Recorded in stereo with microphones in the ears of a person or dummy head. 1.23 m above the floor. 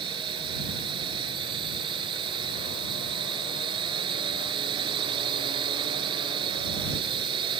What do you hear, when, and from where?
0.0 s a drone: 30° right (ahead or behind)